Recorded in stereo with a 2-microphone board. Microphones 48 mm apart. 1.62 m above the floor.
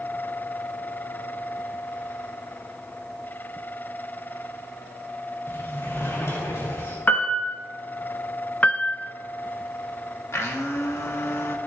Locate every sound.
5.5 s a sliding door: 75° left (ahead or behind), 3.5 m
7.1 s a piano: 40° left (ahead or behind), 1.5 m
8.6 s a piano: 35° left (ahead or behind), 0.6 m
10.3 s a blender: 75° left (ahead or behind), 1.5 m